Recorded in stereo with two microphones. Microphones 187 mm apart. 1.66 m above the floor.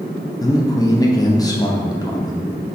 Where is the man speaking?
20° left (ahead or behind), 0.7 m.